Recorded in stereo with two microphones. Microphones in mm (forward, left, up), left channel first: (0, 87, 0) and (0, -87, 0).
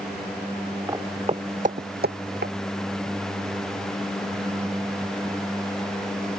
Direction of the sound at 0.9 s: 15° right (ahead or behind).